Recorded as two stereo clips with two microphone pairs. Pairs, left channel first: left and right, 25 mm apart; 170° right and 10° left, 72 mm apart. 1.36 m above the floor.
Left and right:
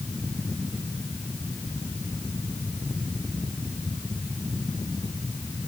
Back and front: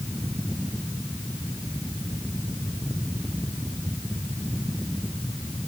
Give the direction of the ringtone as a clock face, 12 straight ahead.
I don't hear a ringtone.